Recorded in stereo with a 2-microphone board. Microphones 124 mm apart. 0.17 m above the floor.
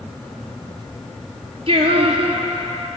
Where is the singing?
55° right (ahead or behind), 0.7 m.